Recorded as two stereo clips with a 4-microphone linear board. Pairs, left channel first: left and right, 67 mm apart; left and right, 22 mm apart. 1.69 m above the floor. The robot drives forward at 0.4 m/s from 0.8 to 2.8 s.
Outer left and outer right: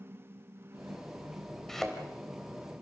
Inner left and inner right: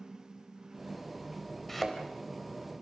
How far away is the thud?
About 4 m.